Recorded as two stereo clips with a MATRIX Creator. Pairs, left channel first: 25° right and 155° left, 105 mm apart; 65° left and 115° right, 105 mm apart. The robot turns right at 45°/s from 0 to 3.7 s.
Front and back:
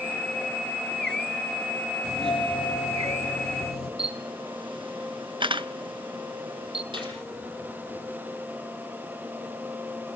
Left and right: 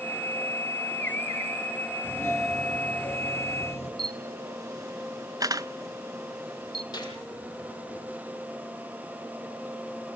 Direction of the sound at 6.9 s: 120° left.